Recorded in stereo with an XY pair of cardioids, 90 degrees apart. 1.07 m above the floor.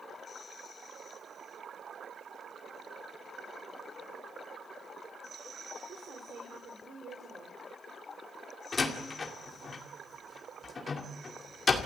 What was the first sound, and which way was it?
A woman speaking, 60° right.